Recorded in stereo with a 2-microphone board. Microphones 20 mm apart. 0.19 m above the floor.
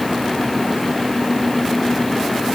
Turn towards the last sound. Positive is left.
No sound to turn to.